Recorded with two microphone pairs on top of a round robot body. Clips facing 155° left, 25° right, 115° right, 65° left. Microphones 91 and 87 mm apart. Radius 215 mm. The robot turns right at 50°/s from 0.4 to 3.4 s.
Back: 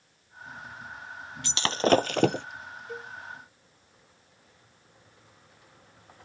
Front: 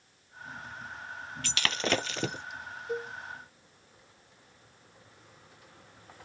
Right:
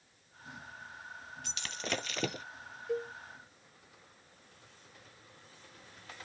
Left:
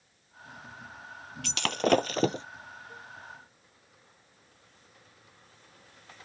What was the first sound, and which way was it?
Breaking glass, 80° left.